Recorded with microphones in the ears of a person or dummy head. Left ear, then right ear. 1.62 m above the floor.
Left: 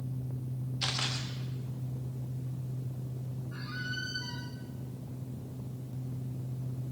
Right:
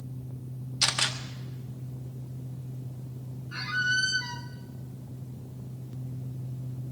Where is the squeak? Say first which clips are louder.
Right 12 dB; 40° right (ahead or behind), 0.7 m.